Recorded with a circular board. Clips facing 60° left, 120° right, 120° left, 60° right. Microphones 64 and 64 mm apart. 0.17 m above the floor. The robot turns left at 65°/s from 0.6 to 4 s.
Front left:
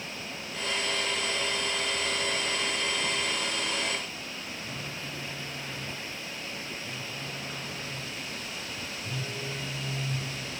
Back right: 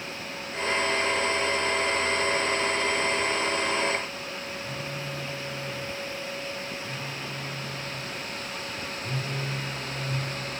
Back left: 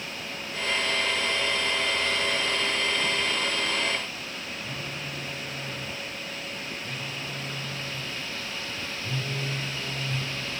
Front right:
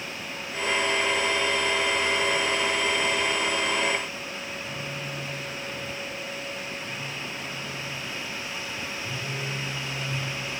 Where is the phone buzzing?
175° right, 6 m.